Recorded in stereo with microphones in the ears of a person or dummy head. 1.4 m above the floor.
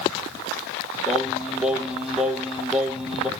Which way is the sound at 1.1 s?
5° right (ahead or behind).